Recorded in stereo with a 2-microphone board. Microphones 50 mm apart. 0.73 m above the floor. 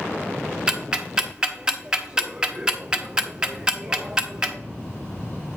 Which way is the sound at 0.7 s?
15° right (ahead or behind).